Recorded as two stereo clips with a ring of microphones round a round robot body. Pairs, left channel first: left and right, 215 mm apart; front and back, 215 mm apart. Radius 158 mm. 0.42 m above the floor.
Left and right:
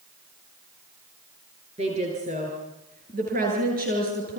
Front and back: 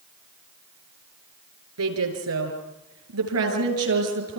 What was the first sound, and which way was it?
A woman speaking, 160° right.